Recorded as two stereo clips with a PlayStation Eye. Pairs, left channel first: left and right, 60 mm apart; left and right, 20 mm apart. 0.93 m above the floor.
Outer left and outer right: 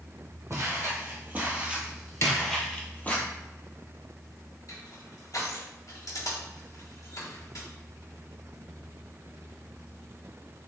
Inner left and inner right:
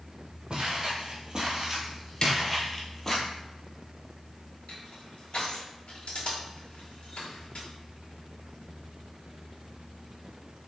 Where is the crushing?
65° left (ahead or behind), 2.0 m.